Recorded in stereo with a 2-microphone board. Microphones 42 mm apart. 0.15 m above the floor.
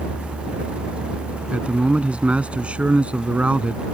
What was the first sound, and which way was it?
A man speaking, 30° right (ahead or behind).